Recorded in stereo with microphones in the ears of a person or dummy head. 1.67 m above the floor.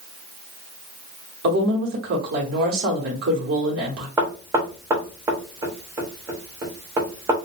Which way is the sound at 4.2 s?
20° right (ahead or behind).